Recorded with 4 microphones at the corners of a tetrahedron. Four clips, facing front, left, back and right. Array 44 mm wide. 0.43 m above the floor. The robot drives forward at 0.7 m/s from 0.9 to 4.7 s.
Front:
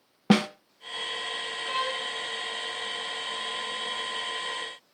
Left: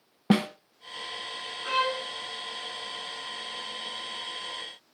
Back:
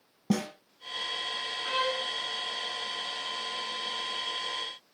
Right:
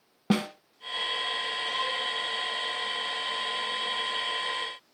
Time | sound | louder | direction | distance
0.3 | a snare drum | left 3 dB, front 7 dB | 15° left | 1.2 m
1.6 | a violin | left 7 dB, back 1 dB | 100° left | 2.5 m